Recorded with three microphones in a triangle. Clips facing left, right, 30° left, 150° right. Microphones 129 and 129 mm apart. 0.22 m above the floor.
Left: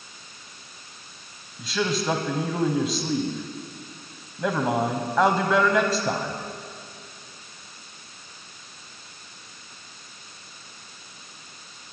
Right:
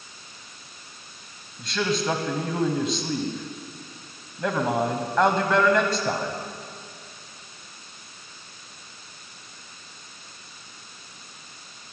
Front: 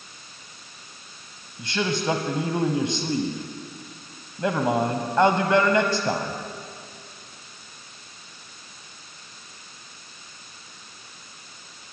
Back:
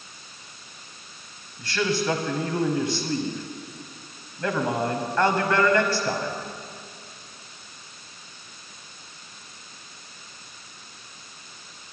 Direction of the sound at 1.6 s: 5° left.